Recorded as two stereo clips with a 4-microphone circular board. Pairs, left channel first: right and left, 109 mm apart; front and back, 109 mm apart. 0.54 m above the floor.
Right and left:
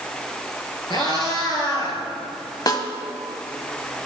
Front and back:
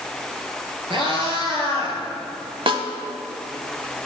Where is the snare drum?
145° right, 1.0 m.